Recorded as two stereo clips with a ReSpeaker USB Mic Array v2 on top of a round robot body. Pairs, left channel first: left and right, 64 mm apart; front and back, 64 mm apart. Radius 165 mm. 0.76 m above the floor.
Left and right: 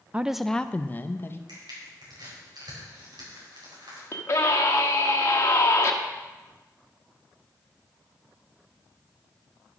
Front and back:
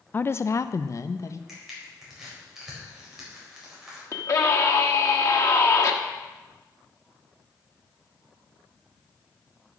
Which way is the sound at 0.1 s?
35° right.